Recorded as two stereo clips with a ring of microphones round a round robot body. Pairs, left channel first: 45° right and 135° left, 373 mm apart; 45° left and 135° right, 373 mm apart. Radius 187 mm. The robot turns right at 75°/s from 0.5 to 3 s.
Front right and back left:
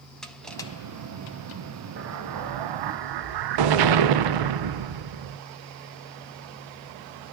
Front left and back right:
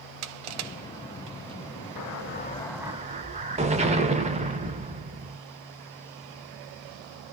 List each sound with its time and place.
0.2 s crushing: 135° right, 0.5 m; by 1.6 s 50° right, 0.5 m
2.0 s an explosion: 75° left, 0.5 m; by 5.4 s 155° left, 0.5 m